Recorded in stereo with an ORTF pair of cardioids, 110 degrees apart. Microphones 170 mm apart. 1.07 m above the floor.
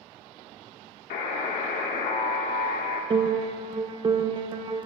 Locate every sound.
1.1 s a buzzer: 70° left, 1.5 m
3.1 s a piano: 30° right, 0.7 m